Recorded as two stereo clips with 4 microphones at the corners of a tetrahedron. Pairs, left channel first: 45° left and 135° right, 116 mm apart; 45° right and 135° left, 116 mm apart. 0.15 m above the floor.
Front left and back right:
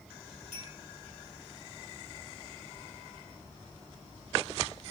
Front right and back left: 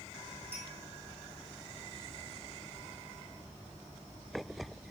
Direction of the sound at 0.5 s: 60° left.